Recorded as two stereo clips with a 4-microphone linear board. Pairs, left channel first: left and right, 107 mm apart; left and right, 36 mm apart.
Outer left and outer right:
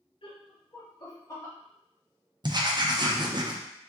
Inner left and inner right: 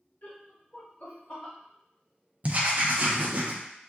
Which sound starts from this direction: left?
Laughter, at 0.2 s.